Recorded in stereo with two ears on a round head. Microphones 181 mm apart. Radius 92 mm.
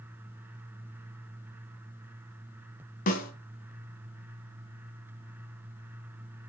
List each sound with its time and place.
3.1 s a snare drum: 40° left (ahead or behind), 1.6 m